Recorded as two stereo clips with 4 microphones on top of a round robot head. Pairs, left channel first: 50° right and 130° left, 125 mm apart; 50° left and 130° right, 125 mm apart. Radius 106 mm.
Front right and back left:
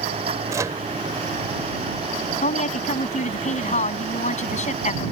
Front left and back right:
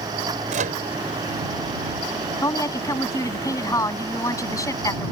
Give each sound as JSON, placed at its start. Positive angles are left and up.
{"t": 0.5, "sound": "a microwave", "azimuth_deg": -160}
{"t": 2.4, "sound": "a woman speaking", "azimuth_deg": -15}